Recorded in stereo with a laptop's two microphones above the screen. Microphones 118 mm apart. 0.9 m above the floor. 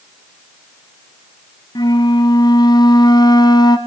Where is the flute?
35° left (ahead or behind), 1.1 m.